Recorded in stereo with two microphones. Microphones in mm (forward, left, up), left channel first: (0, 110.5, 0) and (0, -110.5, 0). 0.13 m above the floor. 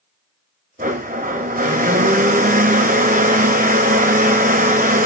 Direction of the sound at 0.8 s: 40° right (ahead or behind).